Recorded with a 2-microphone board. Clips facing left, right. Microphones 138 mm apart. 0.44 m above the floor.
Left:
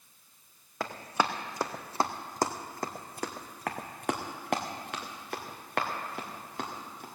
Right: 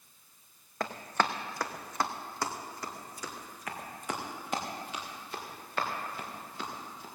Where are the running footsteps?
Centre (ahead or behind), 1.3 m; by 7.0 s 75° left (ahead or behind), 3.5 m.